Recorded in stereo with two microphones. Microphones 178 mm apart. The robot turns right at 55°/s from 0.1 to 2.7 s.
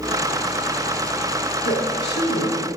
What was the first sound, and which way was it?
A woman speaking, 65° left.